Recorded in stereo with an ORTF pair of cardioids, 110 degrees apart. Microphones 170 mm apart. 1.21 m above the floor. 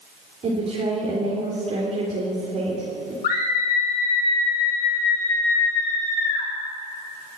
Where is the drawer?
No drawer in this recording.